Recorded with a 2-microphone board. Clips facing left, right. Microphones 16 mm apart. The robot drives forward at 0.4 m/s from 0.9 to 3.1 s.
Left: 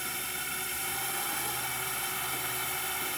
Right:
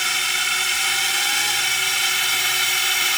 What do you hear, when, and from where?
0.0 s a drone: 65° right (ahead or behind)